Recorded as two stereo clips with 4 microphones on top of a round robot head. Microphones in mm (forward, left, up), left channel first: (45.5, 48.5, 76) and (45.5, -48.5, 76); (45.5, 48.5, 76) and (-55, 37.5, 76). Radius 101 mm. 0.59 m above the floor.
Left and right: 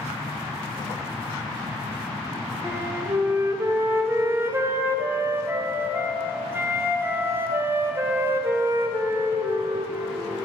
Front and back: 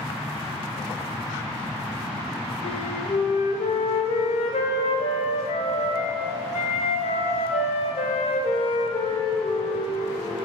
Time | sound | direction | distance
2.6 | a flute | 25° right | 0.6 m